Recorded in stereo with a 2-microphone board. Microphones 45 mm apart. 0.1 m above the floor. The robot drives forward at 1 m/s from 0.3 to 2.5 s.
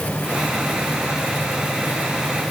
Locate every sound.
Only background noise.